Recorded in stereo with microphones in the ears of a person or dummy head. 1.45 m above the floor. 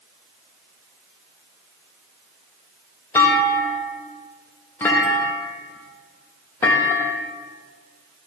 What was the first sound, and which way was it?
A clunk, 20° left (ahead or behind).